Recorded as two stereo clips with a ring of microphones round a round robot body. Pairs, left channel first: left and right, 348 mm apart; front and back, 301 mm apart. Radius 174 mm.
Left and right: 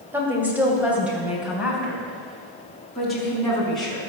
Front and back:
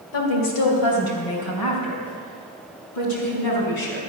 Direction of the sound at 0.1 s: 5° right.